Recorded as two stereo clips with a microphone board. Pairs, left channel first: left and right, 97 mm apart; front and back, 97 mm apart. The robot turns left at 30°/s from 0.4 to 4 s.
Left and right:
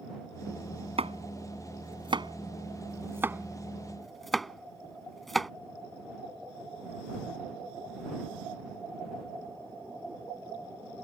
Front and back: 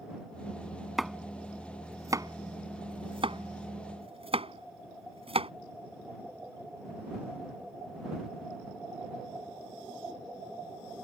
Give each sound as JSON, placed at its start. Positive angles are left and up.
{"t": 1.0, "sound": "chopping", "azimuth_deg": -90}